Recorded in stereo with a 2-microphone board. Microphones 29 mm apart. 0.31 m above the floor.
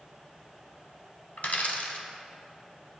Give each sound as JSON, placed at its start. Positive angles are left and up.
{"t": 1.4, "sound": "a dropped coin", "side_deg": 70, "distance_m": 0.9}